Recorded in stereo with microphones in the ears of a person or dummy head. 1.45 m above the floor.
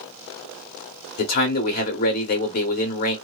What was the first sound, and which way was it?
A man speaking, 50° left (ahead or behind).